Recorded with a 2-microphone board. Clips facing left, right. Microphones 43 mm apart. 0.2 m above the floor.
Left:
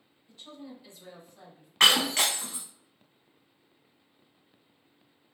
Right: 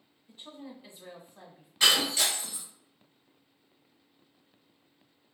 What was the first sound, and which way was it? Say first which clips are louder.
A woman speaking: even; 25° right (ahead or behind).